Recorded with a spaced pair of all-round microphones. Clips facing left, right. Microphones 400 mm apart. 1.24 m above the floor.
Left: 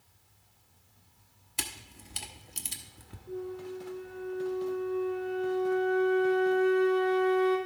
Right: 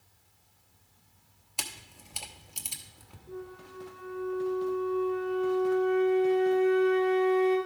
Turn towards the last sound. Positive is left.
turn(degrees=25)  # may be behind; listen again after turning